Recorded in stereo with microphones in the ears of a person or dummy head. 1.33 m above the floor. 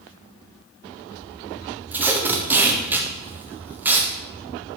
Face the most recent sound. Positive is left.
turn(degrees=-10)  # may be behind; listen again after turning